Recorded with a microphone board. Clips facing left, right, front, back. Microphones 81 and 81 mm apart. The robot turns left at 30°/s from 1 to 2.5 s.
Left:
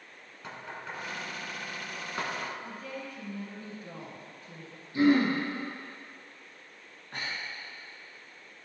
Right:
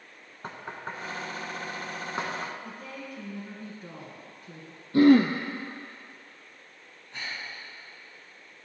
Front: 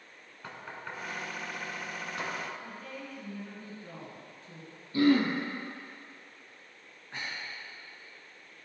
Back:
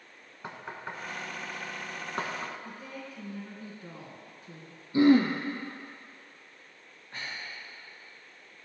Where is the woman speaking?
105° right, 2.5 m.